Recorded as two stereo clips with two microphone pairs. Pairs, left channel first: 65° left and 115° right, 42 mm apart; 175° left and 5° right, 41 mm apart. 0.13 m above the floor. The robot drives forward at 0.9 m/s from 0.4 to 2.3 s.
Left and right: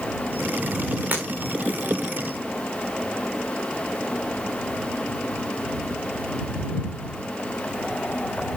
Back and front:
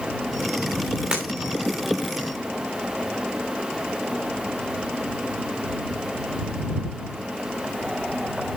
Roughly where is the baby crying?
No baby crying in this recording.